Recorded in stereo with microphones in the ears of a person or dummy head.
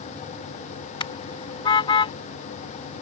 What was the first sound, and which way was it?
A car horn, 30° left (ahead or behind).